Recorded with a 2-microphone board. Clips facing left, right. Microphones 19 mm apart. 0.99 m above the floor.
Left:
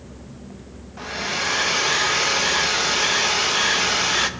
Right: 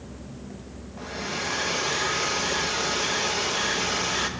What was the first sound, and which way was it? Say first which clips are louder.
A hair dryer: left 6 dB; 35° left (ahead or behind).